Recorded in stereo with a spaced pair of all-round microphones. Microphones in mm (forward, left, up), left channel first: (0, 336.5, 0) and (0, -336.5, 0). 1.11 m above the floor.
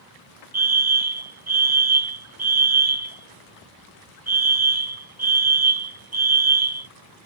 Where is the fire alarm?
25° right (ahead or behind).